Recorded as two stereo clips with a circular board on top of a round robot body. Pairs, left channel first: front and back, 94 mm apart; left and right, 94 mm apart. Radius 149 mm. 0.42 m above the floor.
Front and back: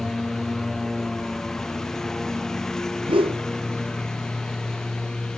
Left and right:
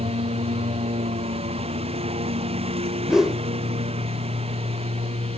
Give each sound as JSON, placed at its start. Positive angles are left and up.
{"t": 0.0, "sound": "a lawn mower", "azimuth_deg": -85}
{"t": 3.1, "sound": "a whoosh", "azimuth_deg": -175}